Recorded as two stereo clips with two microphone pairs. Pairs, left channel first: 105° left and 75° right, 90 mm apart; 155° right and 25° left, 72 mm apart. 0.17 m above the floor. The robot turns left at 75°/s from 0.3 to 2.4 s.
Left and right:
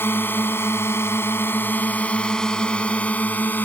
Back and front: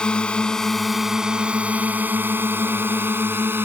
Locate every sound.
0.0 s a drone: 135° left; by 3.7 s 55° left